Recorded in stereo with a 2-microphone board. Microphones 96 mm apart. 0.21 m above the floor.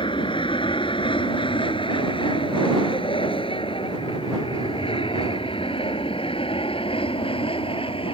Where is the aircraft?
60° left (ahead or behind); by 8.1 s 70° left (ahead or behind).